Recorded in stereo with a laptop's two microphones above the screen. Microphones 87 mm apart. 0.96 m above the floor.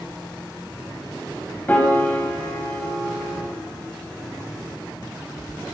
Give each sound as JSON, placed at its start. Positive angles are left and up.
{"t": 1.7, "sound": "a piano", "side_deg": 20, "distance_m": 0.8}